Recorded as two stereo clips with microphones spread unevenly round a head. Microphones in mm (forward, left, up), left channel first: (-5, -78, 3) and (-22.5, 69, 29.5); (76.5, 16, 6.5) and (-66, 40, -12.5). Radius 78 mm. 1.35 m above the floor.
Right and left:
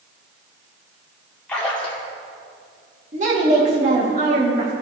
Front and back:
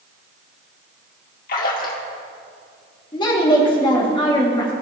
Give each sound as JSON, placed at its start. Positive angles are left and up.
{"t": 1.5, "sound": "a splash", "azimuth_deg": 5, "distance_m": 1.9}
{"t": 3.1, "sound": "a woman speaking", "azimuth_deg": 50, "distance_m": 2.5}